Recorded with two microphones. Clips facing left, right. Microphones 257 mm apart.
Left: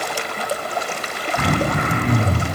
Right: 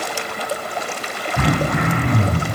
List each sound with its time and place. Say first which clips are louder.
1.4 s throat clearing: right 1 dB; 70° right (ahead or behind), 0.6 m